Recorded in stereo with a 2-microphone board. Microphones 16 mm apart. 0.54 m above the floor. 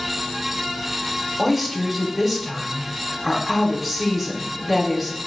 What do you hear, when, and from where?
1.4 s a woman speaking: 15° right (ahead or behind), 1.0 m